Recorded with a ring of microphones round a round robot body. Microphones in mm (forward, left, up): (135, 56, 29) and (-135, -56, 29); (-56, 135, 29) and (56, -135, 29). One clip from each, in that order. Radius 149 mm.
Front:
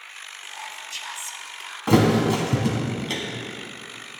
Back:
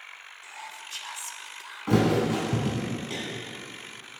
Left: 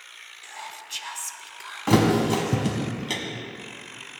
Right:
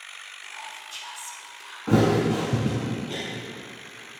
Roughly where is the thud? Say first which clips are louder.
Front 5 dB, left 1 dB; left.